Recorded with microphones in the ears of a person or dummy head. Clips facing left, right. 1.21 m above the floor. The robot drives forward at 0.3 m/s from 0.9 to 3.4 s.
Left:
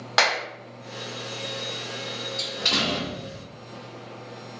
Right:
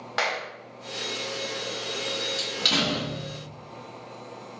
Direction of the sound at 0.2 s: 70° left (ahead or behind).